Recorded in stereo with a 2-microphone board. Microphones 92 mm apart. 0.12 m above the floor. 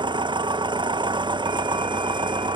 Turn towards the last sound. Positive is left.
turn(degrees=-60)  # may be behind; listen again after turning